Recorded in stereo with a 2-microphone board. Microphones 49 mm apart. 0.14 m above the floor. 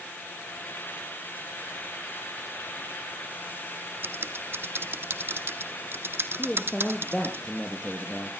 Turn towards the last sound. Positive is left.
turn(degrees=15)  # may be behind; listen again after turning